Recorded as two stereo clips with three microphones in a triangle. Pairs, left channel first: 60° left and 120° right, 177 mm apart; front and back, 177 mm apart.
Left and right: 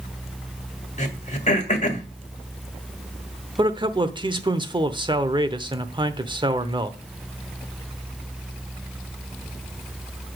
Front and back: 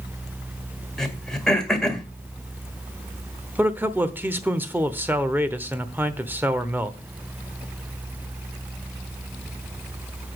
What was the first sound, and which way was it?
Throat clearing, 85° left.